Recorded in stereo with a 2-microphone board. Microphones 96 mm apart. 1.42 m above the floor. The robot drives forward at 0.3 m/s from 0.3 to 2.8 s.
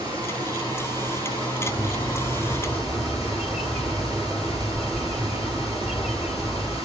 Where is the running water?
40° right (ahead or behind), 9 m.